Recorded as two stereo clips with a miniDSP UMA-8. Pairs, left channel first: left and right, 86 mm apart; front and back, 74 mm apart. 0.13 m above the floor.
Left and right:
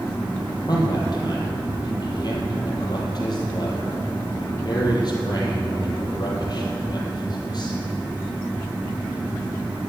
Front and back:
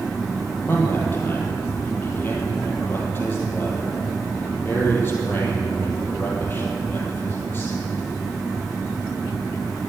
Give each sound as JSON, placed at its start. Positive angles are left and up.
{"t": 0.7, "sound": "a man speaking", "azimuth_deg": 55, "distance_m": 3.5}